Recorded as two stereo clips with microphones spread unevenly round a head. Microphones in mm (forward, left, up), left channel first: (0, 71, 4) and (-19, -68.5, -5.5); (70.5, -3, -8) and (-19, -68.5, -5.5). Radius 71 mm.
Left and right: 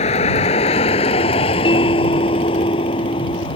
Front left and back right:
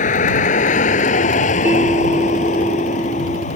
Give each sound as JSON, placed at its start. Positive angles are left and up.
{"t": 0.0, "sound": "a vehicle", "azimuth_deg": 35}
{"t": 1.6, "sound": "a bell", "azimuth_deg": 140}